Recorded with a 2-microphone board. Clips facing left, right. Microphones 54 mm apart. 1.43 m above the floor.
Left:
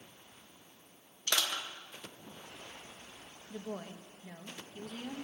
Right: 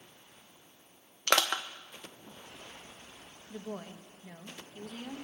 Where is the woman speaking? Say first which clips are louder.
Even; 10° right (ahead or behind), 1.2 m.